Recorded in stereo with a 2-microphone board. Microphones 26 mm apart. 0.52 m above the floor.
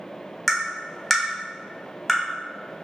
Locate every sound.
0.5 s tapping: centre (ahead or behind), 0.8 m